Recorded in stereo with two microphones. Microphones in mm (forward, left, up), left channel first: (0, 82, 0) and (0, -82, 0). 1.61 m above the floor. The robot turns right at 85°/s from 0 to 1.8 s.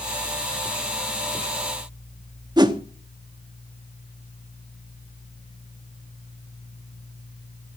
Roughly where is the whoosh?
Right.